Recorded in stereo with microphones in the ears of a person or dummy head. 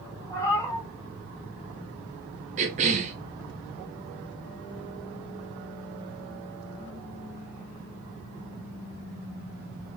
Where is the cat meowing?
20° left (ahead or behind), 1.8 m.